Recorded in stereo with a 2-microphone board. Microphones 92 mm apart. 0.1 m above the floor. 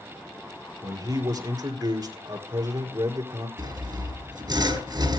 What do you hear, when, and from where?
0.8 s a man speaking: 40° right (ahead or behind), 2 m
3.6 s sawing: 45° right (ahead or behind), 2.5 m